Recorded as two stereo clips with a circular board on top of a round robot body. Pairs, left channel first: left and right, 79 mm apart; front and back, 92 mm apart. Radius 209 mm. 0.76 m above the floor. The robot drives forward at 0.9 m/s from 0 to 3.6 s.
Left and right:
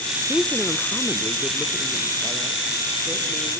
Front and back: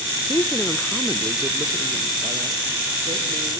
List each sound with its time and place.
0.3 s a woman speaking: 10° left, 1.1 m; by 3.6 s straight behind, 2.5 m